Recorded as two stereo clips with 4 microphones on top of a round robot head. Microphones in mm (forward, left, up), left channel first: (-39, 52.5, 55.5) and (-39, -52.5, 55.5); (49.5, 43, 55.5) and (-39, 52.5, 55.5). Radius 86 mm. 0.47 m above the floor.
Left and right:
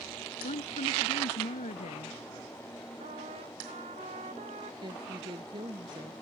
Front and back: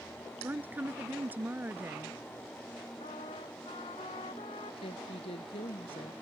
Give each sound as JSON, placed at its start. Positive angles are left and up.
{"t": 0.4, "sound": "a woman speaking", "azimuth_deg": 105}
{"t": 3.0, "sound": "a trumpet", "azimuth_deg": -50}
{"t": 4.8, "sound": "a woman speaking", "azimuth_deg": -35}